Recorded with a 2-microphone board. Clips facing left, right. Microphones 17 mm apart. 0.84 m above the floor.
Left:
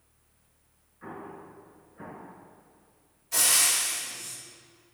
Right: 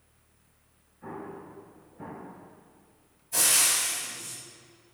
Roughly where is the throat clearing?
I don't hear throat clearing.